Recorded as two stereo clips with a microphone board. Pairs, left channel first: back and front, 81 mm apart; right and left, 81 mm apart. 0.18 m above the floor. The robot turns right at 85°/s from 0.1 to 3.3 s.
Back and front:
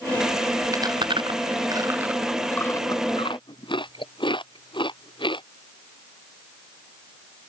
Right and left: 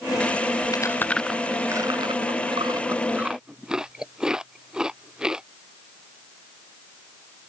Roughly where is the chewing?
Ahead right.